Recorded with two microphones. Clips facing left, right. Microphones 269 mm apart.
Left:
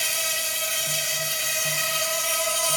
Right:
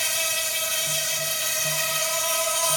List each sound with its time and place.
0.0 s an insect: 30° left (ahead or behind), 1.8 m